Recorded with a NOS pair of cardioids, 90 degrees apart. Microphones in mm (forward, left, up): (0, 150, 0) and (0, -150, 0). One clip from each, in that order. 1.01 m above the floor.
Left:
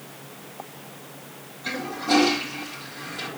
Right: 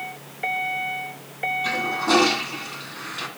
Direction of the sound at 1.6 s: 65° right.